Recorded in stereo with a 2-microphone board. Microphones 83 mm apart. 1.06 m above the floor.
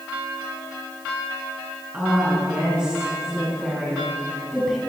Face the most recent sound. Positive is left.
turn(degrees=0)  # may be behind; listen again after turning